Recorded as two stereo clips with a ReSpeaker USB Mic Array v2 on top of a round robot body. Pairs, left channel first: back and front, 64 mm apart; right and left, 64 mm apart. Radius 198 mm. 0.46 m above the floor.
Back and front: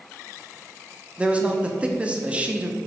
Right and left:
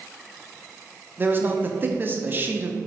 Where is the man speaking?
60° left, 1.0 m.